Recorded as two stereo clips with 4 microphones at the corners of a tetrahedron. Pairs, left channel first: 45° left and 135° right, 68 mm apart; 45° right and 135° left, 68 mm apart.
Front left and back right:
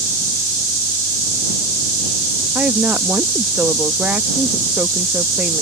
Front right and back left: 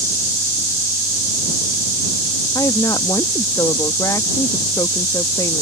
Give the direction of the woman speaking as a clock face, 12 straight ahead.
2 o'clock.